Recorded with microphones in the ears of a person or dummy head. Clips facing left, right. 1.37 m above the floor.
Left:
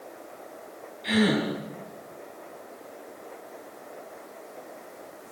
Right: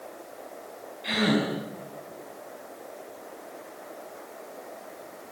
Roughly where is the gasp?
Centre.